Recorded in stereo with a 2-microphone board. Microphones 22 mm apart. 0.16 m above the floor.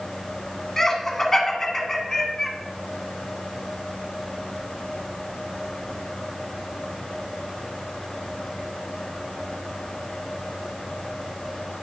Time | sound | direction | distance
0.8 | laughter | 20° left (ahead or behind) | 1.4 m